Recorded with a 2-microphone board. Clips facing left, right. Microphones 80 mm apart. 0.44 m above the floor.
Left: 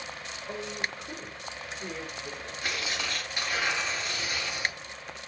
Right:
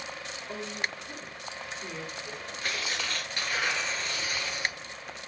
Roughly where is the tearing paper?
Centre.